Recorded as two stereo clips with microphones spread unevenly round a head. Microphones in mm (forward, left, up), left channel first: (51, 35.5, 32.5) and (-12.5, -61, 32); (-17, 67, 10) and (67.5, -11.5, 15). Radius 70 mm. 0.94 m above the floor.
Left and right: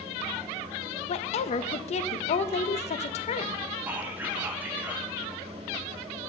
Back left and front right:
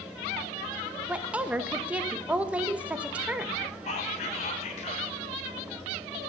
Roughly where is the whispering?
Behind.